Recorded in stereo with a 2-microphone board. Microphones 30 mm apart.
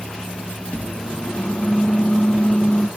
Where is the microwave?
40° left (ahead or behind), 3 m.